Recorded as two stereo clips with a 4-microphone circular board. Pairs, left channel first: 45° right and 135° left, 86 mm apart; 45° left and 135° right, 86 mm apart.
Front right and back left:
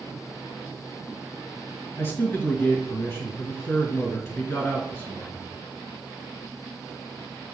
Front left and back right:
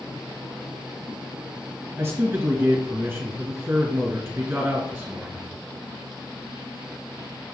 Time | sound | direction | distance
2.0 | a man speaking | 90° right | 1.5 m